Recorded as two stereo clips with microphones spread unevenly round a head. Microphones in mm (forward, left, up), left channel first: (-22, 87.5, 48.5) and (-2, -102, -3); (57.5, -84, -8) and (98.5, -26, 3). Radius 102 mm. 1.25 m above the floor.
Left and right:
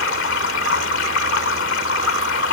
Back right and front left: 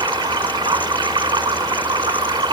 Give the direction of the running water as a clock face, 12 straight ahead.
10 o'clock.